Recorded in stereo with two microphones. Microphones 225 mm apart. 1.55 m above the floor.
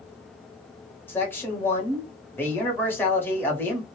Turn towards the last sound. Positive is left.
turn(degrees=10)  # may be behind; listen again after turning